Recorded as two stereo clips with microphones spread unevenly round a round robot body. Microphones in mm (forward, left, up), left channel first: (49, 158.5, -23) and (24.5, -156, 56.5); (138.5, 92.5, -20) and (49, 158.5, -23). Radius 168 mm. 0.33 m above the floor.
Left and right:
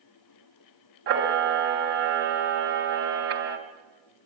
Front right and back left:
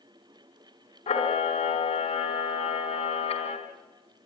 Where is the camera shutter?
35° right, 3 m.